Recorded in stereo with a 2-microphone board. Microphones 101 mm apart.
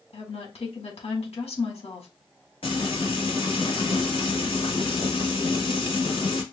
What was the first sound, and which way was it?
A woman speaking, 80° left.